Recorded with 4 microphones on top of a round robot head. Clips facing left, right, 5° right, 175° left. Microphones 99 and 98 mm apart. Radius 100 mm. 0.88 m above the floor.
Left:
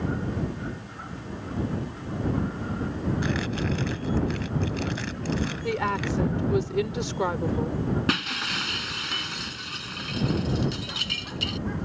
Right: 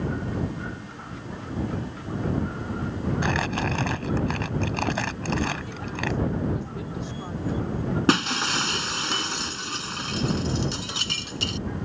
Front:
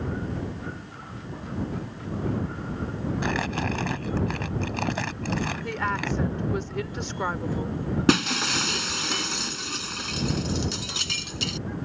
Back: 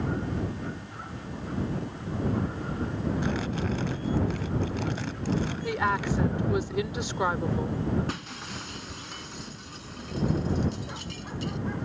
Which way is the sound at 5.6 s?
95° left.